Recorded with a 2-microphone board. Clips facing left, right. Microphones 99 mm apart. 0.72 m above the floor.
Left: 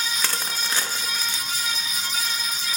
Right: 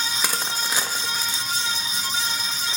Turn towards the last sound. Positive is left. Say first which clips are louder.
# right 2 dB
turn(degrees=-15)  # may be behind; listen again after turning